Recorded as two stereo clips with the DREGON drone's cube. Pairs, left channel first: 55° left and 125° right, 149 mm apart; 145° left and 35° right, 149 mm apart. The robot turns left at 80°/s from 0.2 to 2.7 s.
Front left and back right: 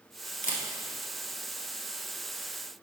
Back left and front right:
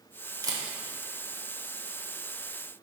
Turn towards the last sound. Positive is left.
turn(degrees=-145)